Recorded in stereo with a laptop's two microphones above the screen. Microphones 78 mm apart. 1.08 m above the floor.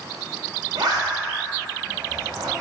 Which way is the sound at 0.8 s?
70° right (ahead or behind).